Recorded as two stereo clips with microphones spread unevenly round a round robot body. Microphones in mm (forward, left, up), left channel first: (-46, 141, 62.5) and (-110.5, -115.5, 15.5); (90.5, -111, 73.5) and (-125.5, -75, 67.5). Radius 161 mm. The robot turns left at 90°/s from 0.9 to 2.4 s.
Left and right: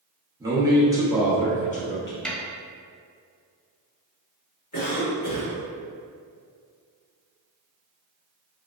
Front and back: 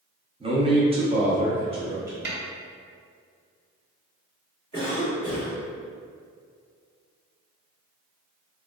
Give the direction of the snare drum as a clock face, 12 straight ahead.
6 o'clock.